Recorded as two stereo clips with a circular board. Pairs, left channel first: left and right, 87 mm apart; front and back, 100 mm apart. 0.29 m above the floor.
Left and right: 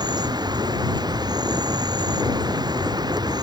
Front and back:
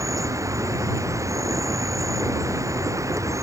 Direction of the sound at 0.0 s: 125° right.